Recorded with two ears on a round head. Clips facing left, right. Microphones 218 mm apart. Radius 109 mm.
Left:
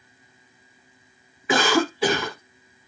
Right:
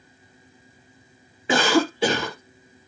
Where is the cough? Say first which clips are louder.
Right 1 dB; 25° right (ahead or behind), 1.0 m.